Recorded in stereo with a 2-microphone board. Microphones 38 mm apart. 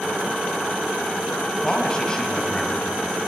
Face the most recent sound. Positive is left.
turn(degrees=20)  # may be behind; listen again after turning